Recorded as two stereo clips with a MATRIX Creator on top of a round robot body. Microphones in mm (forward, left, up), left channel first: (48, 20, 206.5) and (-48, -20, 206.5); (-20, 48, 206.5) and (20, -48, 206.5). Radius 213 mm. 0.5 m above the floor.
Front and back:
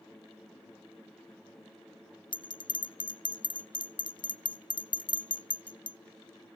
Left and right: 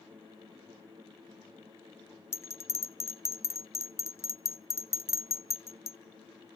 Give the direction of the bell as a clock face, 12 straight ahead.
10 o'clock.